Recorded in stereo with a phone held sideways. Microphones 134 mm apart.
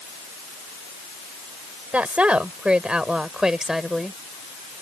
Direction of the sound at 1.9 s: 10° right (ahead or behind).